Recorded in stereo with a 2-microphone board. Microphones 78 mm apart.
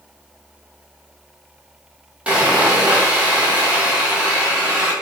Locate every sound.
2.3 s sawing: 15° right (ahead or behind), 1.2 m